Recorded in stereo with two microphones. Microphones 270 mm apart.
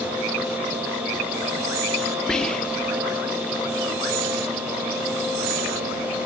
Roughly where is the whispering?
Centre.